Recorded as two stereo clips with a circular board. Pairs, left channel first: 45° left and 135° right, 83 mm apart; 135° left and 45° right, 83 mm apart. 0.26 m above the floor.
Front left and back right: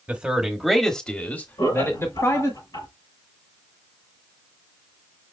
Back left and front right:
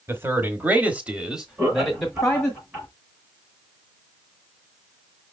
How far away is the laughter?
About 4.5 m.